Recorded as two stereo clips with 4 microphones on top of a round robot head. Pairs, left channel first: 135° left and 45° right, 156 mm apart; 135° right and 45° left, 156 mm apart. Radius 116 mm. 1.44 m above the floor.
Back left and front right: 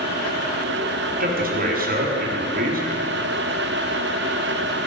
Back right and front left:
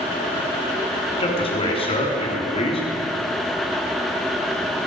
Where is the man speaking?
75° right, 4 m.